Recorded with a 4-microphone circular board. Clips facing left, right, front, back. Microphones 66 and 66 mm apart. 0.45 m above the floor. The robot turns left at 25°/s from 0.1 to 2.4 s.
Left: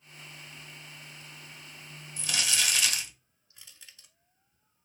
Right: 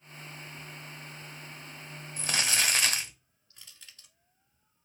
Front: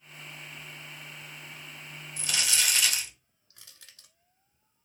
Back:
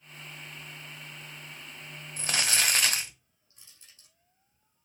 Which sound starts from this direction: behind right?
Crumpling, at 2.2 s.